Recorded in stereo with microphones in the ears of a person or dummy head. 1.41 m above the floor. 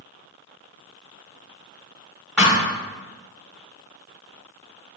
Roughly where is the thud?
Centre.